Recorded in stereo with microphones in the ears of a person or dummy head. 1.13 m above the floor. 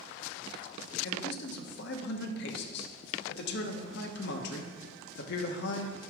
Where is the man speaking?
60° left (ahead or behind), 1.0 m.